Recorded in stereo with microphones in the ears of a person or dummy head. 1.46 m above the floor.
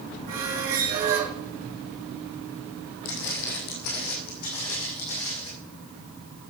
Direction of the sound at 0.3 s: 45° right (ahead or behind).